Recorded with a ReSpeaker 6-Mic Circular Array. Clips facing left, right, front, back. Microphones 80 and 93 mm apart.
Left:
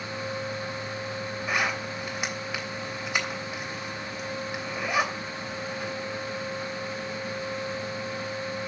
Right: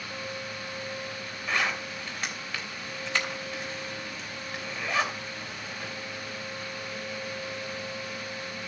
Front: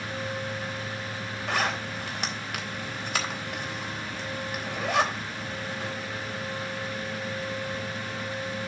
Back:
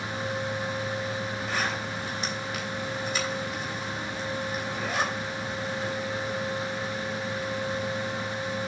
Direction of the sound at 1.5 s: 10° left.